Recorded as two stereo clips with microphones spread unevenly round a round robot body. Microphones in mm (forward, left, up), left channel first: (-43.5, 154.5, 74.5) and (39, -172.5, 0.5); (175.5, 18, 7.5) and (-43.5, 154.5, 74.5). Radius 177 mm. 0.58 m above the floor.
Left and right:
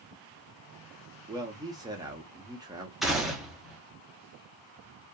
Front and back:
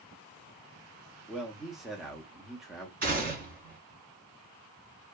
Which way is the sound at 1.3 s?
90° right.